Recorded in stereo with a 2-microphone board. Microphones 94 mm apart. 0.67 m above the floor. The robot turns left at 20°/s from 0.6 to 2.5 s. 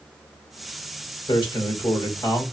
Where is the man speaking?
60° left (ahead or behind), 2.5 m; by 2.5 s 40° left (ahead or behind), 2.5 m.